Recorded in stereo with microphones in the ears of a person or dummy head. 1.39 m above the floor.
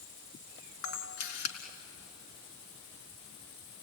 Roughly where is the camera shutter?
Left.